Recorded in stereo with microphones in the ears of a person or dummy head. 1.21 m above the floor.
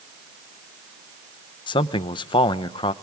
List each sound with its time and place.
1.7 s a man speaking: 20° left (ahead or behind), 0.6 m